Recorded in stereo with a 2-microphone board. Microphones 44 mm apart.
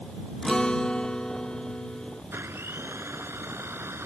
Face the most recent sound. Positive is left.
turn(degrees=-85)